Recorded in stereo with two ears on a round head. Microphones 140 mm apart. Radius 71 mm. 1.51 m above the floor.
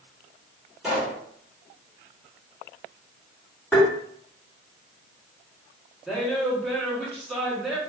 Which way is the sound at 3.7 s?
10° left (ahead or behind).